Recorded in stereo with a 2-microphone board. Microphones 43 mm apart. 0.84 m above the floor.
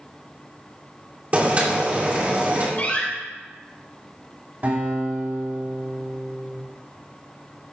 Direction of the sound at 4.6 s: 40° right (ahead or behind).